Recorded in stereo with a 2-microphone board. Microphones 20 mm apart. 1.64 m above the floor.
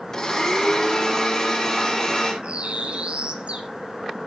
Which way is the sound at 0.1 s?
40° left (ahead or behind).